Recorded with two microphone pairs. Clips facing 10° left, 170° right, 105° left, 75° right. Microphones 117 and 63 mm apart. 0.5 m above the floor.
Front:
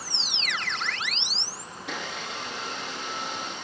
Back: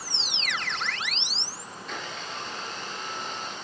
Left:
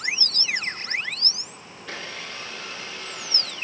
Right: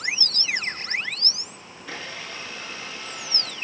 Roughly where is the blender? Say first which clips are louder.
Front 2 dB, even; ahead.